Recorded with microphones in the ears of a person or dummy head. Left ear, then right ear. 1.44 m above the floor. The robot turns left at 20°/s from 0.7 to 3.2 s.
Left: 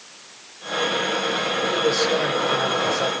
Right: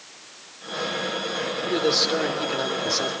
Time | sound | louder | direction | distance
1.6 | a man speaking | right 1 dB | 30° right (ahead or behind) | 4 m